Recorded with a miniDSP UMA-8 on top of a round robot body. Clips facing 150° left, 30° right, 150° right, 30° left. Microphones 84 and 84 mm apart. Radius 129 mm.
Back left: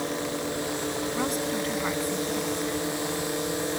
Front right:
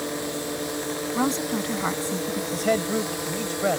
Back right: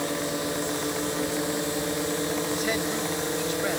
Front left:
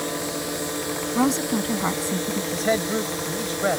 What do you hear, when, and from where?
1.1 s a woman speaking: 35° left
2.5 s a man speaking: 25° right